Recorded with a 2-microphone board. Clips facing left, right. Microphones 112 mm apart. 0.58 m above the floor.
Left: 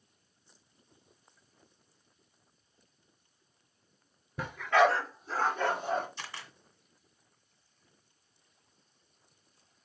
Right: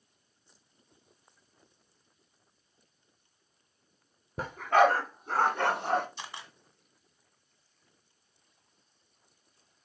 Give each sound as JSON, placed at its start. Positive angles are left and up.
{"t": 4.4, "sound": "a dog barking", "side_deg": -45, "distance_m": 2.0}
{"t": 6.2, "sound": "a camera shutter", "side_deg": -20, "distance_m": 1.7}